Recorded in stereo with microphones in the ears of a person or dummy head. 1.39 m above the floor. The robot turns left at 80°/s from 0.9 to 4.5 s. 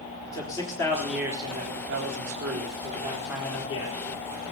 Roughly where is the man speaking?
Ahead.